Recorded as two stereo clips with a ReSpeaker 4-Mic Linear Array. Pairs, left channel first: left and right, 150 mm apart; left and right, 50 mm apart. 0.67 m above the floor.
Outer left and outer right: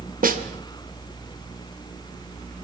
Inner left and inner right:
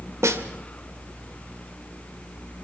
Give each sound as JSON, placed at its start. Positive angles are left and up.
{"t": 0.2, "sound": "a snare drum", "side_deg": -70, "distance_m": 2.0}